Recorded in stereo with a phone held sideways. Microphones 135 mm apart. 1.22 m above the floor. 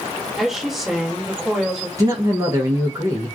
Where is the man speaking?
25° right (ahead or behind), 0.7 m.